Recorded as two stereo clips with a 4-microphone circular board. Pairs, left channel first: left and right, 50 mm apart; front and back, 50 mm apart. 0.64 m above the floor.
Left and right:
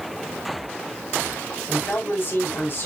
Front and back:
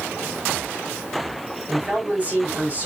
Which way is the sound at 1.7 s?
125° left.